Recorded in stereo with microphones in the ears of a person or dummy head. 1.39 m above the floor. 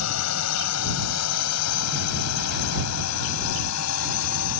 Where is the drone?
80° left.